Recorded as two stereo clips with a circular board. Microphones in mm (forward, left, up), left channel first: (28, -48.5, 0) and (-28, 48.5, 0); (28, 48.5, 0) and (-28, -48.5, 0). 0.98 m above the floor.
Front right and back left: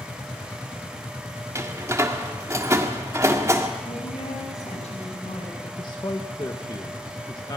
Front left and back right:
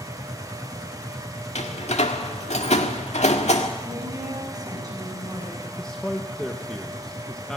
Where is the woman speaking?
65° right, 7 m.